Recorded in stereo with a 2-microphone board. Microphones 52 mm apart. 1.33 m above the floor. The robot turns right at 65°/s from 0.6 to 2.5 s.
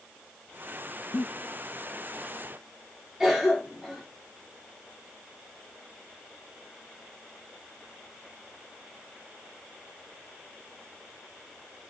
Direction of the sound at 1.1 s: 75° left (ahead or behind).